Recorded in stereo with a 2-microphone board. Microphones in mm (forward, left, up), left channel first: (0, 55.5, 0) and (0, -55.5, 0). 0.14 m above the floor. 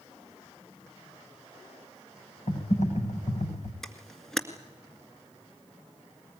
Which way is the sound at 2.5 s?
75° left (ahead or behind).